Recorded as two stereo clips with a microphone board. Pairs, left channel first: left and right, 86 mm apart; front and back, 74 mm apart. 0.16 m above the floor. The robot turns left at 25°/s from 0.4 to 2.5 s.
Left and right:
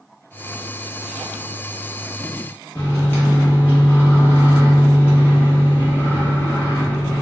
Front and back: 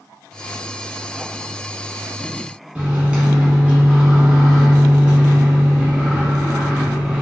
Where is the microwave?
125° left, 1.0 m.